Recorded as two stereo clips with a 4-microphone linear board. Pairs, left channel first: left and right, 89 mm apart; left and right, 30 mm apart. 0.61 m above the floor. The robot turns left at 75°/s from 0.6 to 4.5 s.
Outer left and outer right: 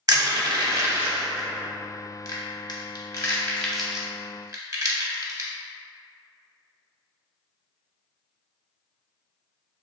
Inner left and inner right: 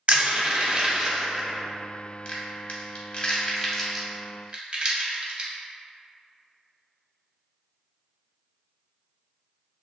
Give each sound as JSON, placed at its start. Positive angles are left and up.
{"t": 0.1, "sound": "crushing", "side_deg": -45, "distance_m": 0.6}